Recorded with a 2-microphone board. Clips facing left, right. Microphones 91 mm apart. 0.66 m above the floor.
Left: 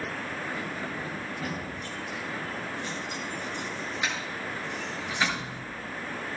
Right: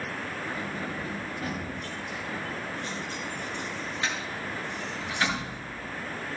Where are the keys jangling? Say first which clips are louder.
Even; 15° left (ahead or behind), 5.5 m.